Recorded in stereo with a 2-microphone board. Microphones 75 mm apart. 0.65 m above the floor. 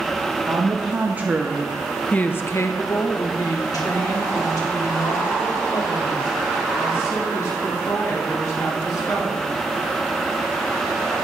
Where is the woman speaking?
35° right (ahead or behind), 1.0 m; by 9.5 s 55° left (ahead or behind), 4.5 m.